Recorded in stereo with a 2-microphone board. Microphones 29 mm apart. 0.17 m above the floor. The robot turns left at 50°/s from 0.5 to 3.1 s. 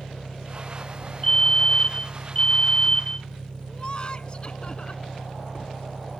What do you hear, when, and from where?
0.0 s an engine running: 120° left; by 6.2 s 10° right
1.2 s a fire alarm: 140° left; by 3.3 s 50° left
3.7 s laughter: 35° left (ahead or behind)